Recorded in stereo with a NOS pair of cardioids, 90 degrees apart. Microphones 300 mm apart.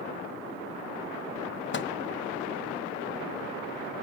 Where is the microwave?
40° left, 0.9 m.